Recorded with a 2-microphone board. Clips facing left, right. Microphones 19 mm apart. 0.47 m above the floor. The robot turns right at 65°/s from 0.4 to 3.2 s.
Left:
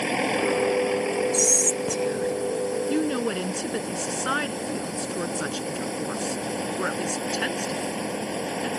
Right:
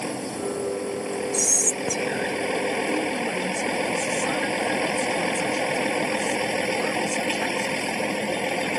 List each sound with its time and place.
0.0 s a vehicle: 115° left; by 8.8 s 65° right
1.3 s whispering: 165° left; by 2.4 s 130° right
2.9 s a woman speaking: 50° left (ahead or behind); by 8.7 s 65° left (ahead or behind)